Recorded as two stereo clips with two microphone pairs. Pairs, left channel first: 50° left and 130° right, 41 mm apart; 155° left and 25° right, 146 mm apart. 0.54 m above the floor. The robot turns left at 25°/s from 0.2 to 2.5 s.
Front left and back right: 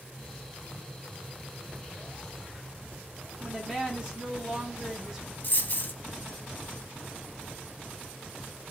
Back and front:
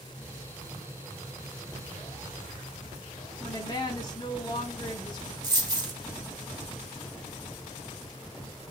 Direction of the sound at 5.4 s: 30° left.